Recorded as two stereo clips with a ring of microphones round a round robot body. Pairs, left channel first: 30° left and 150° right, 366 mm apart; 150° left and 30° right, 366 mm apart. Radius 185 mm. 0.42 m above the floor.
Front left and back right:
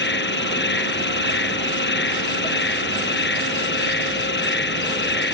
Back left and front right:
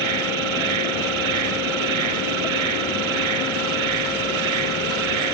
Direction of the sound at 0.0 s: 35° right.